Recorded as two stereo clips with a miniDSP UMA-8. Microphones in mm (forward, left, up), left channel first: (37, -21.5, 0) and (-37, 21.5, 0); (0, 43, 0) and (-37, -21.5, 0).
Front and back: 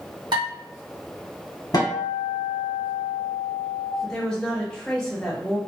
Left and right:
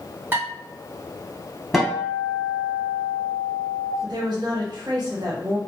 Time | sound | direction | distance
0.3 | dishes clattering | straight behind | 1.8 m
1.7 | a guitar | 30° right | 1.1 m
4.0 | a woman speaking | 110° right | 1.0 m